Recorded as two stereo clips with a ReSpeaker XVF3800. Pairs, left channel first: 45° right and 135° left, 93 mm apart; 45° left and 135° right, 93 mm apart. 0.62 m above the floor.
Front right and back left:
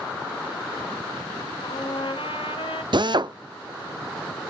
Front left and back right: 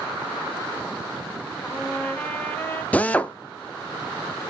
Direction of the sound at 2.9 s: 115° left.